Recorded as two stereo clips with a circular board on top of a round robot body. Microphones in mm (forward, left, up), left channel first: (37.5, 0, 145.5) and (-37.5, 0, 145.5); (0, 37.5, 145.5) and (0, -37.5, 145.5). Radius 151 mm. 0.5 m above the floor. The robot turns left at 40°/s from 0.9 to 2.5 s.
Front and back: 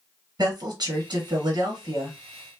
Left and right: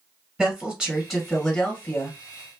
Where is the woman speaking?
170° right, 1.2 m; by 2.2 s 140° left, 1.2 m.